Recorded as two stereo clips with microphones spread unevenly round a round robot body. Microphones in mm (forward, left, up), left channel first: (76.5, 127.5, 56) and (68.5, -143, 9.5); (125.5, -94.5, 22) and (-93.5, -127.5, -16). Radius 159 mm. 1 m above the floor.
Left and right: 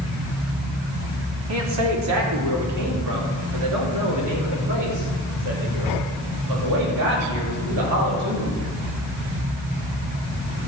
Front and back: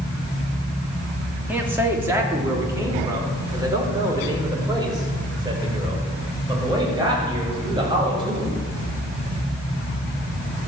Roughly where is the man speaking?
Right.